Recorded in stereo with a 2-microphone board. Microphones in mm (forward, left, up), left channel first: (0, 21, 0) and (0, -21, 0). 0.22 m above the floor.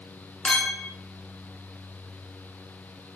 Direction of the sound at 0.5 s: 20° left (ahead or behind).